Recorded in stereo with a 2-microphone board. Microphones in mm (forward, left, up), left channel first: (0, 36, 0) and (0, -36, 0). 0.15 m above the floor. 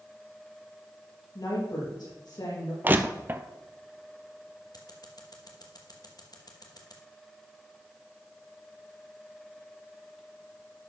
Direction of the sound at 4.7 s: 65° left (ahead or behind).